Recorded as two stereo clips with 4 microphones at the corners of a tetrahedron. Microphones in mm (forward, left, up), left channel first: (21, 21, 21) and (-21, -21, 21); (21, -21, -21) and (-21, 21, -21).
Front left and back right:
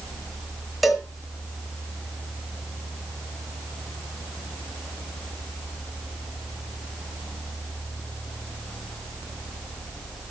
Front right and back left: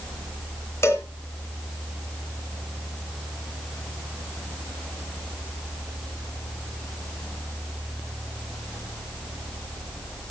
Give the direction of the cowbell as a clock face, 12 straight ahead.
2 o'clock.